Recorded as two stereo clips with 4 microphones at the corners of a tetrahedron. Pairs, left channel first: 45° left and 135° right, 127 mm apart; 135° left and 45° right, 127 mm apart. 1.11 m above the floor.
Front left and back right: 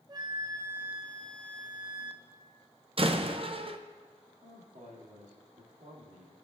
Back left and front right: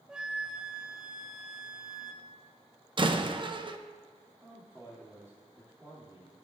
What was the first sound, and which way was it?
A flute, 125° right.